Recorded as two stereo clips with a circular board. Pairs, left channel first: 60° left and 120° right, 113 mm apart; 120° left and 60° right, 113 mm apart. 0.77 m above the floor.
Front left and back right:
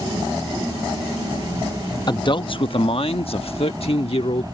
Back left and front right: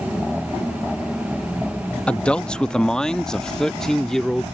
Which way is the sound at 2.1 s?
45° left.